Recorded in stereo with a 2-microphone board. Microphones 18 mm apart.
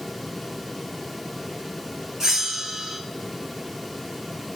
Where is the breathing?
I don't hear breathing.